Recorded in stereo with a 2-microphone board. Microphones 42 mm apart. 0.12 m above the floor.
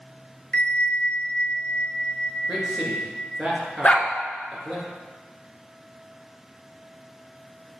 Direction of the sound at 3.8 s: 35° left (ahead or behind).